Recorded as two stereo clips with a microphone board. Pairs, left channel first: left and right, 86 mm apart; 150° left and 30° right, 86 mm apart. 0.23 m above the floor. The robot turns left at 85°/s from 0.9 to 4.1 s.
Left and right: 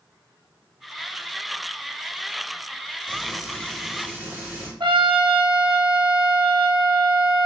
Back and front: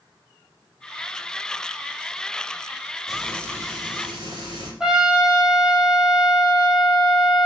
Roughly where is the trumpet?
Right.